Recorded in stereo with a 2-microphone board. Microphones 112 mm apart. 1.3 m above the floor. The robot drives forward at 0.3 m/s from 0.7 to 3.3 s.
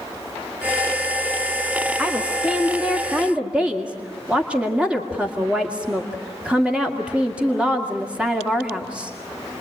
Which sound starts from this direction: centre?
A woman speaking, at 2.0 s.